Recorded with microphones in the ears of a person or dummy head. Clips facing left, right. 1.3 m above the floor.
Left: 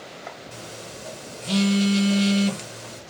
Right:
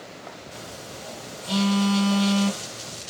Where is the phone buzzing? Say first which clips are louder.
Even; 30° left (ahead or behind), 0.6 m.